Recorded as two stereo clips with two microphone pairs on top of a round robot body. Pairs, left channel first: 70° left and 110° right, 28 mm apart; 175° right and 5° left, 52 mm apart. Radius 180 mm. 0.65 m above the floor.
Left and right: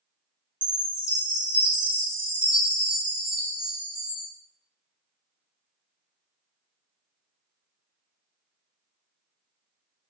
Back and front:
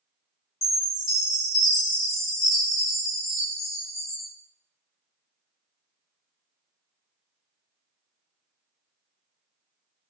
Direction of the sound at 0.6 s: 155° right.